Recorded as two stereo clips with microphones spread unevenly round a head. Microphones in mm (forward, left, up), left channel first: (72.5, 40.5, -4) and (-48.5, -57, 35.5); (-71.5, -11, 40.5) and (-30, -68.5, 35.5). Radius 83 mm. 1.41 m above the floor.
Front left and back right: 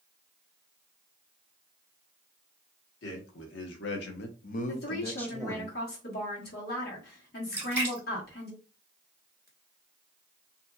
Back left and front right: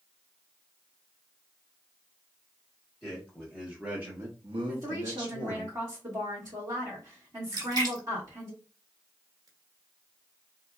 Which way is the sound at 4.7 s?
10° left.